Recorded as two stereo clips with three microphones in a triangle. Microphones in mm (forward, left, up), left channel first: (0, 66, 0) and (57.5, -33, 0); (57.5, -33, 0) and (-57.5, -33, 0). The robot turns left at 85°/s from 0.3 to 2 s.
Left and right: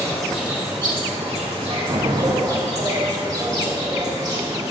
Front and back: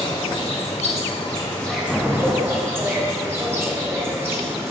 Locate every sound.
0.0 s an insect: 35° left, 1.5 m; by 4.7 s 110° right, 1.5 m
1.9 s an explosion: 85° right, 0.7 m; by 2.8 s 95° right, 0.7 m